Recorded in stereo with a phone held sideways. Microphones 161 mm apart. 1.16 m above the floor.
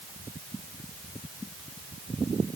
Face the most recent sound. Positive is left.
No sound to turn to.